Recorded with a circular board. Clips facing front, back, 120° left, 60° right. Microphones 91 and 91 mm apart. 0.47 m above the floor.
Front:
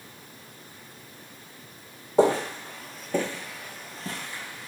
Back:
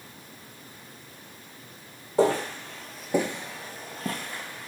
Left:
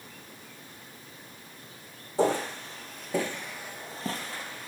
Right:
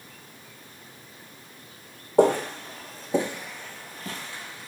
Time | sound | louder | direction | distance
2.2 | footsteps | front 2 dB, right 6 dB | 65° right | 0.9 m